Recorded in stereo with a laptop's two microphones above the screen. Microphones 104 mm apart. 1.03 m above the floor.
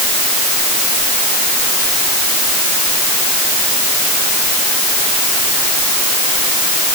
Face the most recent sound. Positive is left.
No sound to turn to.